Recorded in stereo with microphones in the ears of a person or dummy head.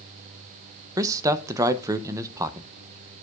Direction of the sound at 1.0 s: 20° right (ahead or behind).